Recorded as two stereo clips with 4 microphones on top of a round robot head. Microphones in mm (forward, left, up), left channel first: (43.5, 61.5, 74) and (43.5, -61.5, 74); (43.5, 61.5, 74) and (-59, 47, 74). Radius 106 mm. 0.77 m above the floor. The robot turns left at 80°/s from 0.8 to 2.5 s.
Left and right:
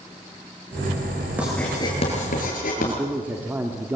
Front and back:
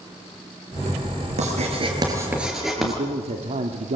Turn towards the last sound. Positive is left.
turn(degrees=-165)